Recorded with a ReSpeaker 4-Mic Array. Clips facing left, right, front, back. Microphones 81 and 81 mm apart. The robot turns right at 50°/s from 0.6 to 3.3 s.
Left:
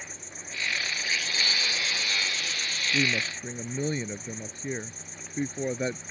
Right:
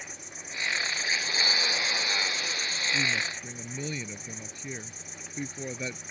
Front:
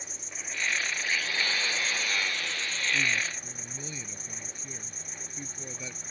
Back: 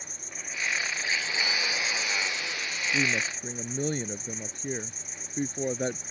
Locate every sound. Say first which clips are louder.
0.0 s an insect: even, even; 155° right; by 6.1 s 20° right
2.9 s a woman speaking: left 4 dB, back 3 dB; 125° left; by 6.0 s 145° left